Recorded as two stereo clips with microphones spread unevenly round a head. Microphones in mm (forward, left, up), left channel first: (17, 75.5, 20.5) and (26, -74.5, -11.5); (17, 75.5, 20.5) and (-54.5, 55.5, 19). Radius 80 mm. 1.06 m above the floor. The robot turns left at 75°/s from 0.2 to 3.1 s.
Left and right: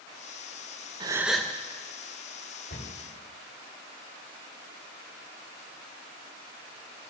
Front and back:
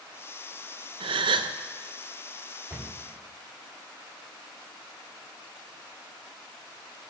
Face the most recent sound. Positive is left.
turn(degrees=90)